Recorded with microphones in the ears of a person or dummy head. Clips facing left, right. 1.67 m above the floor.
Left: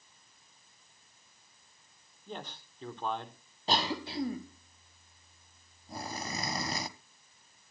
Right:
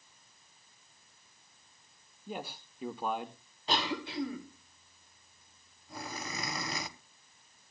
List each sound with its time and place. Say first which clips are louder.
2.3 s a man speaking: right 2 dB; 5° right (ahead or behind), 0.8 m
3.7 s a cough: left 1 dB; 35° left (ahead or behind), 1.3 m